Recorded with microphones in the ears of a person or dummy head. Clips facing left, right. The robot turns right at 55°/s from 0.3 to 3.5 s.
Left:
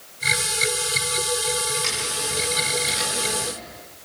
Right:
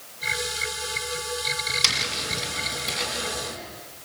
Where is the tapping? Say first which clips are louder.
Left 4 dB; 50° right, 6 m; by 3.5 s 40° left, 6 m.